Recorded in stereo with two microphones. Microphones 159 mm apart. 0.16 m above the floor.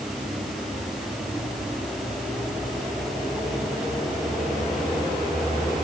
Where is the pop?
I don't hear a pop.